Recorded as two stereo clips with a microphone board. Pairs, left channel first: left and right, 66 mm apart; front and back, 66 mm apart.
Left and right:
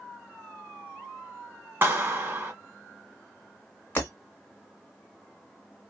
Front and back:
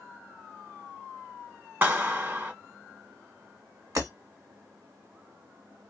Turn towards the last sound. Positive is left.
turn(degrees=155)